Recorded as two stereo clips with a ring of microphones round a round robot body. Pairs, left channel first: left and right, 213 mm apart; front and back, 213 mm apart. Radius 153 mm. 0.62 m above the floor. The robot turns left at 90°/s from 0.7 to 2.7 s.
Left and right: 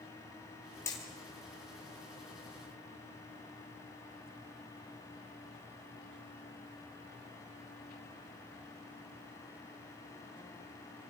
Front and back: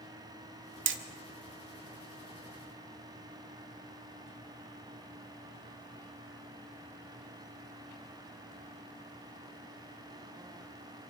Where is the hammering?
170° left, 1.2 m; by 1.0 s 155° left, 1.2 m.